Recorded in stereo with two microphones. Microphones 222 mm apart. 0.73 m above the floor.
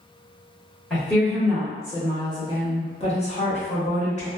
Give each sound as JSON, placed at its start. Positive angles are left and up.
{"t": 0.9, "sound": "a woman speaking", "side_deg": 5, "distance_m": 1.3}